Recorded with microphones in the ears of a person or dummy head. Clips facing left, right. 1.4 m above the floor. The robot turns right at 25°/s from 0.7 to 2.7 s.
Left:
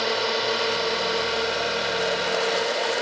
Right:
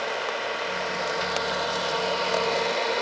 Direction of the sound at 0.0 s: 115° left.